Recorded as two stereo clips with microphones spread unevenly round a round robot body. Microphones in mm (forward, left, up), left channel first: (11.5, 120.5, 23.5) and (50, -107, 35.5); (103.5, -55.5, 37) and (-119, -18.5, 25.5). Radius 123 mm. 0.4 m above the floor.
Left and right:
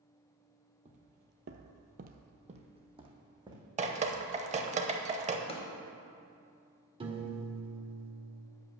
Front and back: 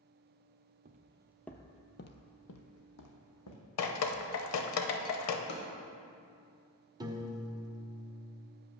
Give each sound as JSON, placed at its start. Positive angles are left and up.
{"t": 0.8, "sound": "footsteps", "azimuth_deg": -140, "distance_m": 0.6}
{"t": 3.8, "sound": "dripping", "azimuth_deg": -20, "distance_m": 0.7}
{"t": 5.5, "sound": "a drawer", "azimuth_deg": 35, "distance_m": 1.2}
{"t": 7.0, "sound": "a piano", "azimuth_deg": -135, "distance_m": 1.0}